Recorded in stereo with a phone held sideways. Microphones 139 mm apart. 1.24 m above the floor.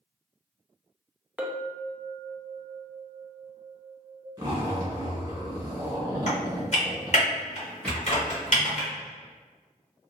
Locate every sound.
1.4 s a clink: 10° right (ahead or behind), 0.5 m
4.4 s a zipper: 25° right (ahead or behind), 1.4 m
6.3 s typing on a keyboard: 50° left (ahead or behind), 1.3 m
7.8 s a rattle: 10° left (ahead or behind), 1.6 m